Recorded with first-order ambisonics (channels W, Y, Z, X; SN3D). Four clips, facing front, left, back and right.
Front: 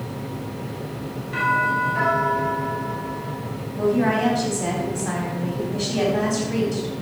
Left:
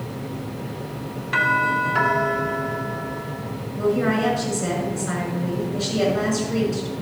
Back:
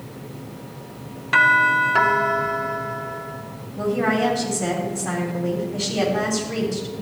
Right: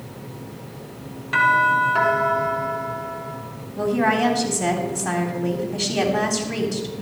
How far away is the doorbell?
About 1.8 m.